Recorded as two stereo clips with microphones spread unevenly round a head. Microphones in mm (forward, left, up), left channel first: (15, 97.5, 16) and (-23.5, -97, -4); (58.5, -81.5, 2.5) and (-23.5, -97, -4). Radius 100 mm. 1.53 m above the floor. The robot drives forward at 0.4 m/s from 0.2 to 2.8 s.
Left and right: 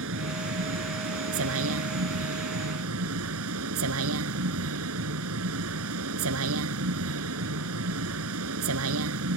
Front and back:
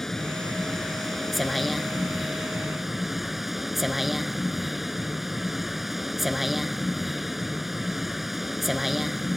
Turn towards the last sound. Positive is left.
turn(degrees=-80)